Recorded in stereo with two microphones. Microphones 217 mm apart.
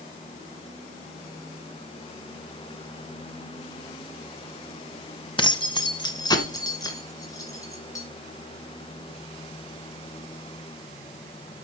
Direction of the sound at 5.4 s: 25° left (ahead or behind).